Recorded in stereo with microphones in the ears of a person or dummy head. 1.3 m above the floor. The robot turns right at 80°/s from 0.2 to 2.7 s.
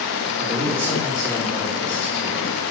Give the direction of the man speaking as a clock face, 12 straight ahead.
2 o'clock.